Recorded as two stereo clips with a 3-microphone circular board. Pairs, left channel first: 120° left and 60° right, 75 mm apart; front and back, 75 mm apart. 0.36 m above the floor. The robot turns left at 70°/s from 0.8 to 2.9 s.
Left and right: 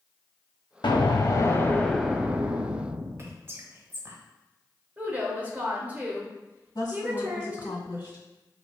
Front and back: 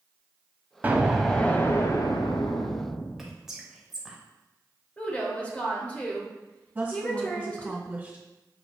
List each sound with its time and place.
0.8 s an explosion: 115° left, 0.5 m; by 3.4 s 30° right, 0.5 m
3.2 s whispering: 95° right, 1.1 m
5.0 s a woman speaking: 40° right, 1.0 m
6.8 s a woman speaking: 110° left, 1.8 m